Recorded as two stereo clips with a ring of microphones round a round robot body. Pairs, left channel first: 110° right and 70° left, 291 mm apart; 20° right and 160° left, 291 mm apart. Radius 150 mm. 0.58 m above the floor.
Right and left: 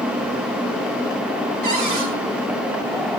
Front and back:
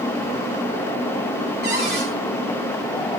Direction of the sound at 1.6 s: 100° left.